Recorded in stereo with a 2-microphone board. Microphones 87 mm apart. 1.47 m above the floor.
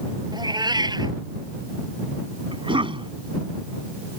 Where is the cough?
70° right (ahead or behind).